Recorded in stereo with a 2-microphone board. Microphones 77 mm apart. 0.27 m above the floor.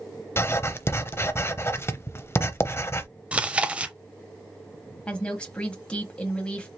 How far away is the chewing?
About 0.6 m.